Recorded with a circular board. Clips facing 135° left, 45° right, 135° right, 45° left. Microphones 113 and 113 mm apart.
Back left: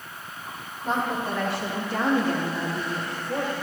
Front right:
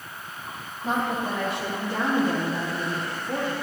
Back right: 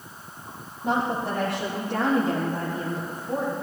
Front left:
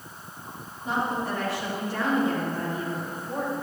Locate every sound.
0.8 s a woman speaking: 120° right, 3.5 m; by 3.5 s 85° right, 3.5 m